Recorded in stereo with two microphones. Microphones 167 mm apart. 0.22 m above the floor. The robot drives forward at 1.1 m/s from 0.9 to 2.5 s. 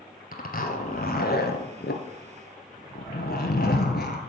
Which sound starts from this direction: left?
A zipper, at 0.3 s.